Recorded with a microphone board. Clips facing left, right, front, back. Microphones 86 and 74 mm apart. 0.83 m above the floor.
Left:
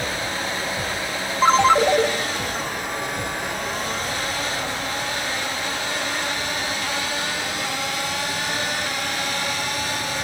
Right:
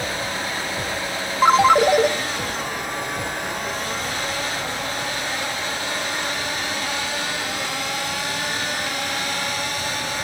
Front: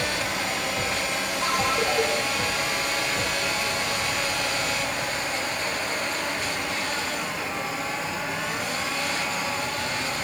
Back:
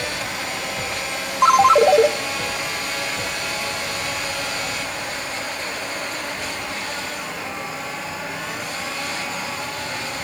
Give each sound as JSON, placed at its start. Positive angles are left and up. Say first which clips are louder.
{"t": 1.4, "sound": "a ringtone", "louder": "right 1 dB, back 14 dB", "azimuth_deg": -170, "distance_m": 0.5}